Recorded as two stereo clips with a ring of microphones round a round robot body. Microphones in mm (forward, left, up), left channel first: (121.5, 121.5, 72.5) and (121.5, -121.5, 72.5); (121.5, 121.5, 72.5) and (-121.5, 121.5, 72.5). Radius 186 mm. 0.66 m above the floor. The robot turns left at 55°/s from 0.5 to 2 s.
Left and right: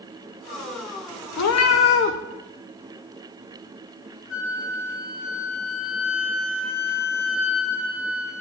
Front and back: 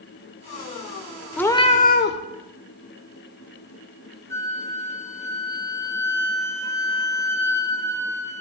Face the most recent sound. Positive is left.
turn(degrees=75)